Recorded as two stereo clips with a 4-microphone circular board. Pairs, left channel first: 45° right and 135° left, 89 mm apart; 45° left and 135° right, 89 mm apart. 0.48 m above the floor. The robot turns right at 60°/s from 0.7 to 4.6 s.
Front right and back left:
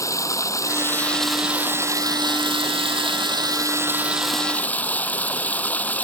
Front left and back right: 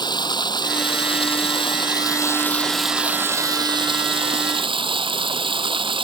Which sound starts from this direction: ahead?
Running water, at 0.0 s.